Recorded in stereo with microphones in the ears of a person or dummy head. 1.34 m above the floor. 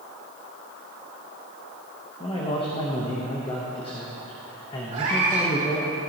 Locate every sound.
2.2 s a man speaking: 25° left (ahead or behind), 1.1 m
4.9 s a cat meowing: 40° right (ahead or behind), 3 m